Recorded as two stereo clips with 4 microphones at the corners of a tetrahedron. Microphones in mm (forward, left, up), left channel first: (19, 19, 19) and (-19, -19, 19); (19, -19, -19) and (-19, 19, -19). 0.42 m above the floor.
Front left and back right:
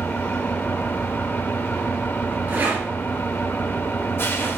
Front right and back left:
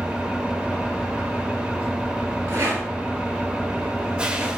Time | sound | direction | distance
0.0 | an engine running | 70° left | 0.7 m
2.5 | a rattle | 175° left | 2.5 m